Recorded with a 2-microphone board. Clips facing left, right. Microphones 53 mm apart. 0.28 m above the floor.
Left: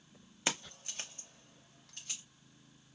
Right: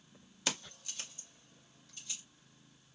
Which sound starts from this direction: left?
Keys jangling, at 0.5 s.